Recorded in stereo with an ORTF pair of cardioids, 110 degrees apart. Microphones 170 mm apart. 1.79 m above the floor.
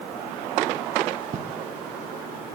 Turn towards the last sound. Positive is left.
turn(degrees=-45)